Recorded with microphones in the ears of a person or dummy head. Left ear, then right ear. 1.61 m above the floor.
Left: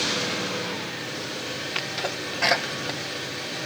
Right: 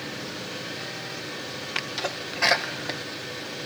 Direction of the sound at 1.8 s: 10° right (ahead or behind).